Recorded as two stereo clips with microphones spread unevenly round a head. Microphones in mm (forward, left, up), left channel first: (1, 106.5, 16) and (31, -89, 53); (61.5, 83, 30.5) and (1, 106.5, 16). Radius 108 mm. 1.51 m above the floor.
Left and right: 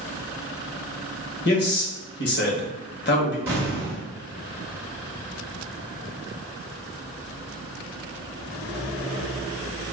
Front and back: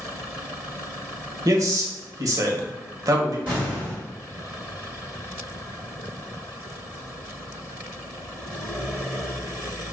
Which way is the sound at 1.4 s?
130° left.